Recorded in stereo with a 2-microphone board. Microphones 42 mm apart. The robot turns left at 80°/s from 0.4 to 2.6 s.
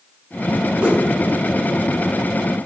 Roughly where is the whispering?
No whispering in this recording.